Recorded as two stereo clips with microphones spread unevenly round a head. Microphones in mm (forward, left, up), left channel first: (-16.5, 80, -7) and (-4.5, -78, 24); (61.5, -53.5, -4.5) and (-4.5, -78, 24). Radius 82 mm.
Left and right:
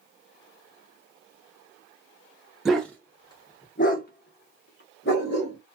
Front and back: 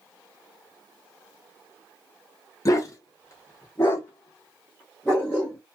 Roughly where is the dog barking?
Ahead.